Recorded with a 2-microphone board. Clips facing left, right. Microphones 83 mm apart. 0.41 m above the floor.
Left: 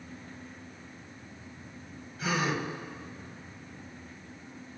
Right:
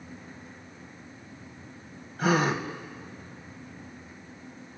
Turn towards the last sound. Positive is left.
turn(degrees=-55)  # may be behind; listen again after turning